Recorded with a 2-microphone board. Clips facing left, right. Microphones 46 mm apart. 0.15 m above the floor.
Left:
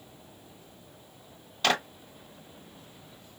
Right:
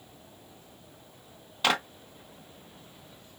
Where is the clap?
10° right (ahead or behind), 0.8 m.